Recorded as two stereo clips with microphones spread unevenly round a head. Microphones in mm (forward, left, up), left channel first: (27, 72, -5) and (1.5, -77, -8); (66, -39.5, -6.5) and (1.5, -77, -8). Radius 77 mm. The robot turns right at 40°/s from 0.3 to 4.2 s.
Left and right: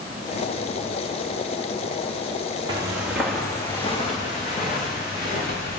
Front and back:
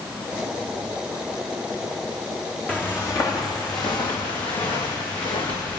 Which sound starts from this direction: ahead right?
Footsteps, at 2.7 s.